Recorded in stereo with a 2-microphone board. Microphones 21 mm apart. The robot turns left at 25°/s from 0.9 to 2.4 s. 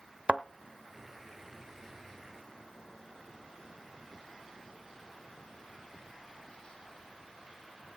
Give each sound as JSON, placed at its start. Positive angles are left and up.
{"t": 0.3, "sound": "a thud", "side_deg": -65, "distance_m": 0.6}